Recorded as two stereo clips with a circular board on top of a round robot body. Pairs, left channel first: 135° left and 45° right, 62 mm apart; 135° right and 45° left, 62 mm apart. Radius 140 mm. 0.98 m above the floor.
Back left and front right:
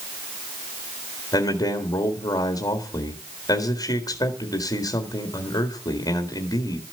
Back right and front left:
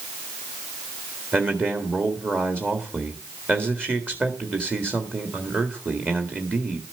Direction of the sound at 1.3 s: 105° left.